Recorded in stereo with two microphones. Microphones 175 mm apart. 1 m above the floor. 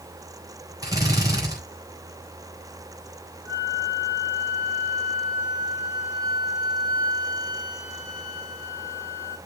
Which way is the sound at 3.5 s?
35° left (ahead or behind).